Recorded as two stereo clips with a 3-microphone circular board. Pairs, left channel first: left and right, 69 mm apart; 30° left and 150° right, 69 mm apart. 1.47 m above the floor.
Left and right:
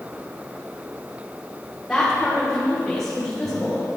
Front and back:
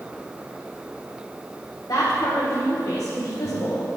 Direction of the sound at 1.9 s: 10° left.